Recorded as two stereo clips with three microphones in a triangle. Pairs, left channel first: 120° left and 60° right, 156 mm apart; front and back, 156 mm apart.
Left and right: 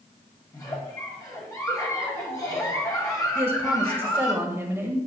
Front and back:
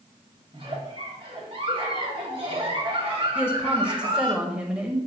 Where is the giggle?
170° left, 1.6 m.